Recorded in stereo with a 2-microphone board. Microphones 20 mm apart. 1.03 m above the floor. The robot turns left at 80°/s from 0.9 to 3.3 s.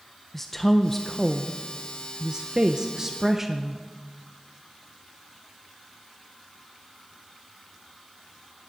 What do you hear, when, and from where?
0.3 s a woman speaking: 35° left, 0.7 m; by 3.8 s 160° right, 0.7 m